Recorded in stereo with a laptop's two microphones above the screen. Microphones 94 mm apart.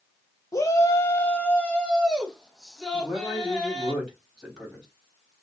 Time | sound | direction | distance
0.5 | a shout | 35° left (ahead or behind) | 0.6 m
2.9 | a man speaking | 5° right (ahead or behind) | 3.5 m